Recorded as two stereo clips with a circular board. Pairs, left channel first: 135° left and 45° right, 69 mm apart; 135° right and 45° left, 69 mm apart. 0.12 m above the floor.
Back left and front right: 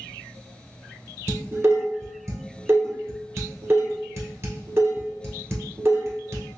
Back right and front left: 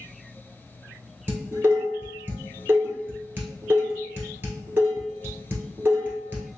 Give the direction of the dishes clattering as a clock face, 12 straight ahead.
12 o'clock.